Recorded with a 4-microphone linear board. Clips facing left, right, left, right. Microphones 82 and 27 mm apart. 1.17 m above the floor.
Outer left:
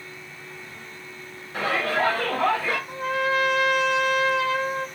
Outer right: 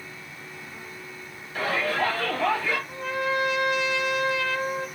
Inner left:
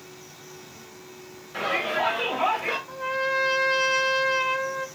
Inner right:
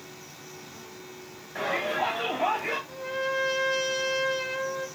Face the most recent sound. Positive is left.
turn(degrees=65)  # may be behind; listen again after turning